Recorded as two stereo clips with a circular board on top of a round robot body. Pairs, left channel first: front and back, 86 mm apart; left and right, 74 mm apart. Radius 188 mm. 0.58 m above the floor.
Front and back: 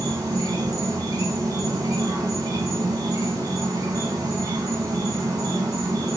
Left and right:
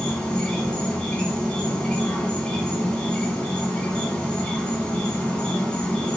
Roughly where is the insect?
Behind.